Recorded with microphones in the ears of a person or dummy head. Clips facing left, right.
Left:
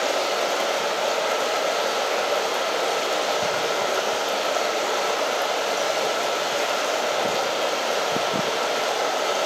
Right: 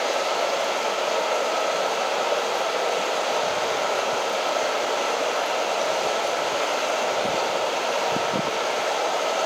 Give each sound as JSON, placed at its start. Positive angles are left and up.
{"t": 0.0, "sound": "running water", "side_deg": 60, "distance_m": 7.5}